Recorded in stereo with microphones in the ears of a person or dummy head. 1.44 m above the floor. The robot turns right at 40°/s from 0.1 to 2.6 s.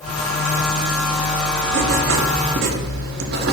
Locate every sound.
1.7 s writing: 105° right, 0.7 m; by 3.5 s 65° right, 0.7 m